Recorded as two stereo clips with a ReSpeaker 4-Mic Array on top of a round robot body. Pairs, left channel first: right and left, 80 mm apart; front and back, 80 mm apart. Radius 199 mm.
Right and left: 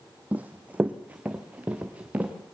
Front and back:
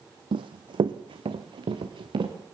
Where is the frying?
I don't hear frying.